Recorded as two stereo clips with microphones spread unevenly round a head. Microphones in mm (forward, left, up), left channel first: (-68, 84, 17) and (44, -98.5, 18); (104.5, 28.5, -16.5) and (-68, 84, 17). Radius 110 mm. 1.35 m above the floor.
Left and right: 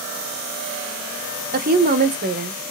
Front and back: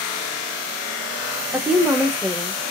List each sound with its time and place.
1.5 s a woman speaking: 110° right, 0.8 m